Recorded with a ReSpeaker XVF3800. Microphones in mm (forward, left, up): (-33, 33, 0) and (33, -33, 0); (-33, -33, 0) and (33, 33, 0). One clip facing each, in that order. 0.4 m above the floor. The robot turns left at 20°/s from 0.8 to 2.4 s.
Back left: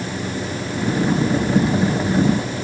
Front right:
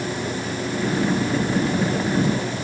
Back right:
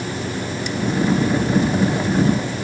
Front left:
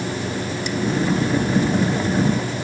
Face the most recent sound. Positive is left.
No sound to turn to.